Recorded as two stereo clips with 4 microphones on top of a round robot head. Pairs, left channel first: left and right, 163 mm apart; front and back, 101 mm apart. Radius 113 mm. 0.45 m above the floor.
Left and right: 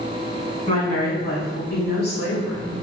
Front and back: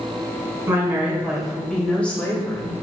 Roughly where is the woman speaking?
Behind left.